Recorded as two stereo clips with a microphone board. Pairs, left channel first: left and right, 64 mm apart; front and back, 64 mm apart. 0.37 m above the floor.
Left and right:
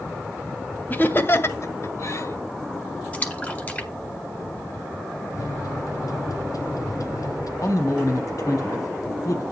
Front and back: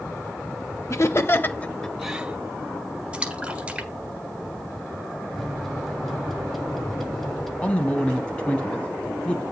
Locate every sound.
0.9 s laughter: 30° left, 1.8 m; by 2.4 s 120° left, 1.3 m
3.1 s a splash: 125° left, 1.5 m
5.3 s a microwave: 85° left, 1.5 m
7.6 s a man speaking: 70° left, 2.5 m